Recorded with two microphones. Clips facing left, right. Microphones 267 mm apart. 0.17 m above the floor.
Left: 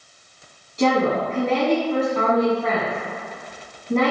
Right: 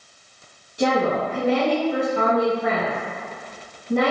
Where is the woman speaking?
15° right (ahead or behind), 1.3 m.